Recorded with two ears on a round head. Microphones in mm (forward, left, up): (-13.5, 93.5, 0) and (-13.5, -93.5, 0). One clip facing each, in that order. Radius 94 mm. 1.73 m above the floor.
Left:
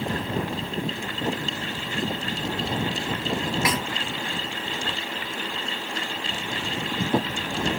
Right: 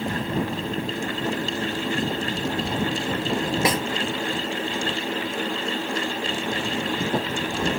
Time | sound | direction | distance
3.6 | a snare drum | 25° right (ahead or behind) | ?